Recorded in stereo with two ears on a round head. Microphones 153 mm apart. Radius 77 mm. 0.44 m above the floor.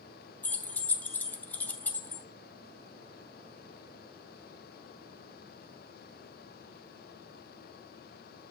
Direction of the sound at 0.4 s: 10° left (ahead or behind).